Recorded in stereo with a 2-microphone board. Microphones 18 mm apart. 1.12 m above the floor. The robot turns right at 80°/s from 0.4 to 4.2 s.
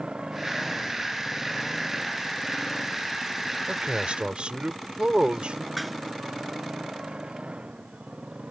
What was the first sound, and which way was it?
A motorcycle, 55° right (ahead or behind).